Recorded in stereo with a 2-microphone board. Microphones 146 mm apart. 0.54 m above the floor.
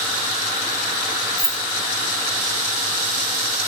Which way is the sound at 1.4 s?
Centre (ahead or behind).